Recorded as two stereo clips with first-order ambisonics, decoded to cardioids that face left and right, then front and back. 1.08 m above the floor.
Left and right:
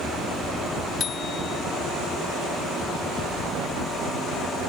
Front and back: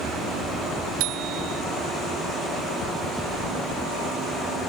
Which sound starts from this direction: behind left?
A bicycle bell, at 1.0 s.